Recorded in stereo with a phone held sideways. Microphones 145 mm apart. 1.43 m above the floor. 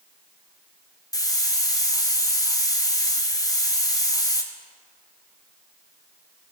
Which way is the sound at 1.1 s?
25° left (ahead or behind).